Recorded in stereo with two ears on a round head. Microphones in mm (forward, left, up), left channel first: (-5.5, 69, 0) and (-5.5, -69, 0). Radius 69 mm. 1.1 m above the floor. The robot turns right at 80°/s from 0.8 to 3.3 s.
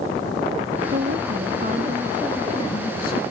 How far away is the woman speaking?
About 2 m.